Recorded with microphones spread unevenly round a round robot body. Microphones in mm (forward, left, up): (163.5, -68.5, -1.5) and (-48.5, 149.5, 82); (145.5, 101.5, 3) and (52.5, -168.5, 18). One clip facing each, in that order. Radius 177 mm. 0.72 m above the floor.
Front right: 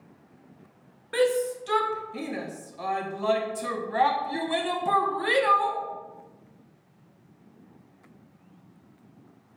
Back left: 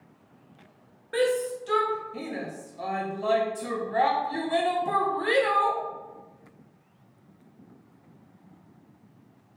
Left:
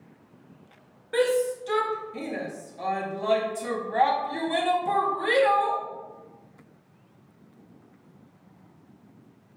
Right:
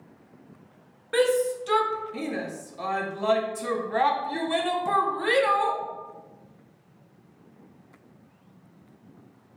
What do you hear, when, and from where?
1.1 s a shout: 45° right, 0.7 m